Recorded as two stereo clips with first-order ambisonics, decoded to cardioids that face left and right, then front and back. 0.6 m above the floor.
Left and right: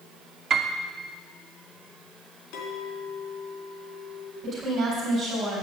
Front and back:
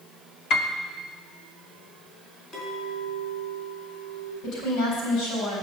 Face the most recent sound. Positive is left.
turn(degrees=-35)